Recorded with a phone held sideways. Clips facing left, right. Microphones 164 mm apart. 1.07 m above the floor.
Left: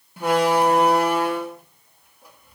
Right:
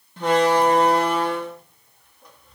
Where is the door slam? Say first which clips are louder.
Right 1 dB; 10° left (ahead or behind), 1.8 m.